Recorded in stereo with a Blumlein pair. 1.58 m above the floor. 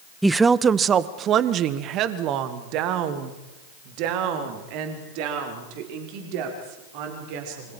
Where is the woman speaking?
5° right, 0.7 m; by 7.8 s 45° right, 6.5 m.